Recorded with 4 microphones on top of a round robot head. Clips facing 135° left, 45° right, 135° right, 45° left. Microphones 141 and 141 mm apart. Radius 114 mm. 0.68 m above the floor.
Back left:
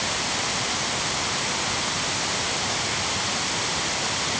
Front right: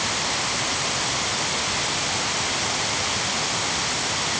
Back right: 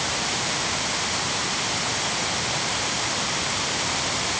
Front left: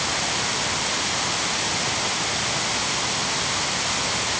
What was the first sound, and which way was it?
Only background noise.